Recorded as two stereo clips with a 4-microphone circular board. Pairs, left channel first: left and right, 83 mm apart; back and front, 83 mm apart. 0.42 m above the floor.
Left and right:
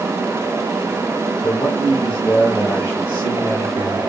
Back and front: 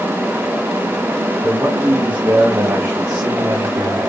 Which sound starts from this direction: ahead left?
A man speaking, at 1.4 s.